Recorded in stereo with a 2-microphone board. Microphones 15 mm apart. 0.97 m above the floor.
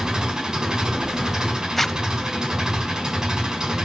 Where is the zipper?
15° left (ahead or behind), 0.9 m.